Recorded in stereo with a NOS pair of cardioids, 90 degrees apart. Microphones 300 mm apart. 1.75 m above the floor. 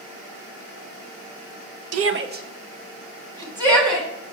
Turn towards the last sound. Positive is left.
turn(degrees=-10)